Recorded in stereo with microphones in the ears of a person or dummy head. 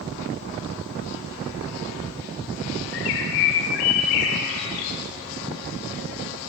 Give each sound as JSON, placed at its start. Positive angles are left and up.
{"t": 2.9, "sound": "a bird", "side_deg": 60, "distance_m": 1.7}